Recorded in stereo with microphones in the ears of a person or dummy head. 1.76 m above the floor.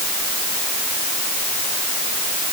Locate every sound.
Only background noise.